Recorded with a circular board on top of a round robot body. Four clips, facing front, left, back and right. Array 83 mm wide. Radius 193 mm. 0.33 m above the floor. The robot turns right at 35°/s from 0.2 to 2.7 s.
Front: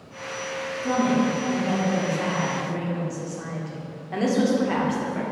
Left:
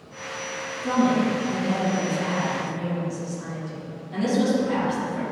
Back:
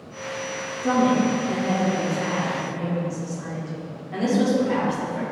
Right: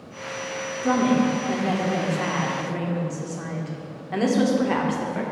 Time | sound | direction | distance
0.8 | a woman speaking | 135° right | 1.6 m